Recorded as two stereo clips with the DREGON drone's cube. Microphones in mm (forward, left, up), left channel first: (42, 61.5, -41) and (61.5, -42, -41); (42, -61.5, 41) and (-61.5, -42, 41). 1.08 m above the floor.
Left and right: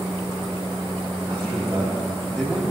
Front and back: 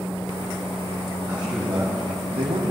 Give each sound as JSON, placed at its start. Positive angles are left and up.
{"t": 1.3, "sound": "a man speaking", "azimuth_deg": -135, "distance_m": 2.0}